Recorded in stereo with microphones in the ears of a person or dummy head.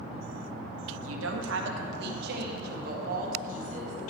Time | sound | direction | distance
0.9 | a woman speaking | 85° right | 1.0 m